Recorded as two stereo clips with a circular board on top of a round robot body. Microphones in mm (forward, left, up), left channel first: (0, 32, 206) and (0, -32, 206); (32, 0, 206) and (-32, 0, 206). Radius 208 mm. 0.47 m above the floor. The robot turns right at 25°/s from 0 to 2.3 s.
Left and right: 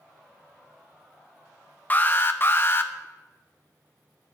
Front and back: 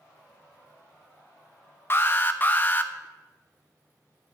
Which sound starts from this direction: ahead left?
An alarm, at 1.9 s.